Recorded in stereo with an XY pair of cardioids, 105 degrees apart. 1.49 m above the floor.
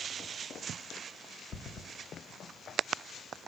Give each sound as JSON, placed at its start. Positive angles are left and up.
{"t": 1.5, "sound": "running footsteps", "azimuth_deg": 40, "distance_m": 5.5}